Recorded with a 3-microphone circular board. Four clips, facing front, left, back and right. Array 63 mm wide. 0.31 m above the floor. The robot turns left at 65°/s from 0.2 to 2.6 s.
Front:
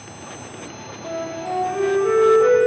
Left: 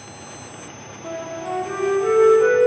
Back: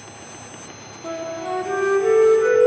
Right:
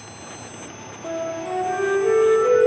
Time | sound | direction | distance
1.0 | a flute | straight behind | 1.3 m